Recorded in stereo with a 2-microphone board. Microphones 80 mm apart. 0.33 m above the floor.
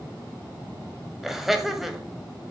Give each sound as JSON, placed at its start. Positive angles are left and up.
{"t": 1.2, "sound": "laughter", "side_deg": -5, "distance_m": 1.6}